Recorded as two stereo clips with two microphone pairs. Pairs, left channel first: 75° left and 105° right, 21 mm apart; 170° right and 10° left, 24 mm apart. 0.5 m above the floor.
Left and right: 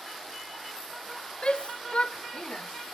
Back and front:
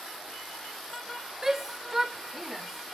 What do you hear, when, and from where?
1.4 s a shout: 75° left, 1.8 m; by 3.0 s 105° left, 1.1 m